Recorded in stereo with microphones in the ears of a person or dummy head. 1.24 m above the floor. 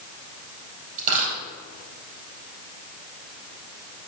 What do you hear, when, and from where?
1.0 s a dropped coin: 45° right (ahead or behind), 4 m